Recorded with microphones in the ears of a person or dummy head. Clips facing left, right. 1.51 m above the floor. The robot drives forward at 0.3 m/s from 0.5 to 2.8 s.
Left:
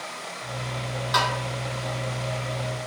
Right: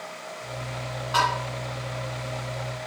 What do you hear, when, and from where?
1.1 s tapping: 45° left (ahead or behind), 1.2 m